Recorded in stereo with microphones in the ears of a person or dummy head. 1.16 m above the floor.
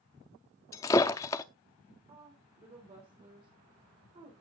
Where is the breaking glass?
20° left (ahead or behind), 0.7 m.